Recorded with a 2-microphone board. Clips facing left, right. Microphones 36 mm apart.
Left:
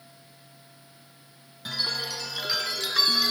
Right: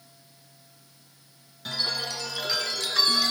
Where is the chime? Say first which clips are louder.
Even; 5° left (ahead or behind), 1.8 m.